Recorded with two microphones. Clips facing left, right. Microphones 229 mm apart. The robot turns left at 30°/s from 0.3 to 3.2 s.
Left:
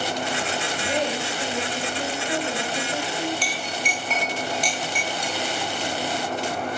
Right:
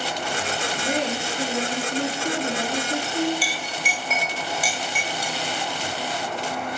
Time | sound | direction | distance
0.8 | a woman speaking | 45° right | 4 m
3.4 | a clink | 5° right (ahead or behind) | 0.6 m